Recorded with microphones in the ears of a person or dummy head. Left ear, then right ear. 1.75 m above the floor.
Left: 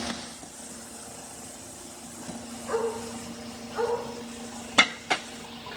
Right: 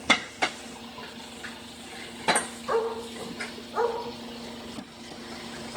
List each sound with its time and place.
2.7 s a dog barking: 35° right (ahead or behind), 7 m